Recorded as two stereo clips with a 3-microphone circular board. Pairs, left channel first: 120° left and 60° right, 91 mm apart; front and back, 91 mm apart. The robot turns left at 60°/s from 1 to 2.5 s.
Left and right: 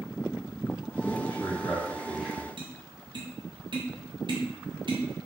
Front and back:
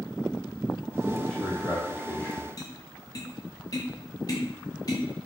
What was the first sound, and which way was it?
A man speaking, 105° left.